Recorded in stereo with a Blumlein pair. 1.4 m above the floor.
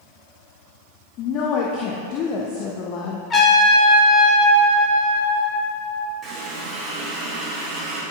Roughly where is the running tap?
Ahead.